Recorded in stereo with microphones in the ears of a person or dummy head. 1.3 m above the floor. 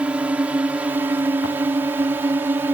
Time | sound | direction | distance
0.0 | a drone | 5° right (ahead or behind) | ?